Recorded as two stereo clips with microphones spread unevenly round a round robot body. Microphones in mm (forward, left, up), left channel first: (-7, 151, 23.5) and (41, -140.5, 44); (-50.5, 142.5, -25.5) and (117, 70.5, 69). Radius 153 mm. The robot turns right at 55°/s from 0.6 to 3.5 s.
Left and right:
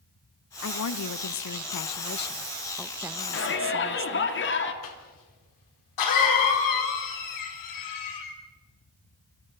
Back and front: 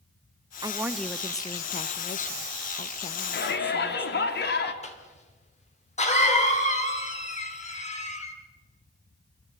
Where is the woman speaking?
60° left, 0.8 m; by 4.3 s 140° right, 0.8 m.